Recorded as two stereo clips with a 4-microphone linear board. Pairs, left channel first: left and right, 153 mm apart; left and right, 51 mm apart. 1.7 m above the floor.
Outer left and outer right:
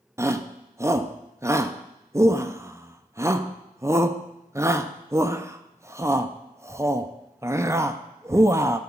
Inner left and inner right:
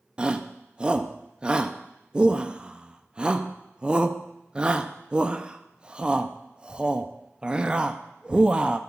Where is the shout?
20° right (ahead or behind), 0.5 m.